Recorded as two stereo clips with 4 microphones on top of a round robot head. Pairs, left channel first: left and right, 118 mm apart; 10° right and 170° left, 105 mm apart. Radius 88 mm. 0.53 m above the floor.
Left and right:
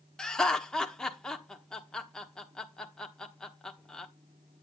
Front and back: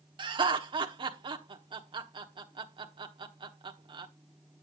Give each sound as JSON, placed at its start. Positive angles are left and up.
{"t": 0.2, "sound": "laughter", "azimuth_deg": 170, "distance_m": 1.2}